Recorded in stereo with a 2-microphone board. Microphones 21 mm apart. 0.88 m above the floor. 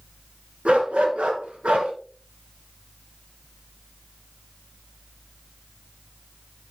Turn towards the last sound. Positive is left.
turn(degrees=-80)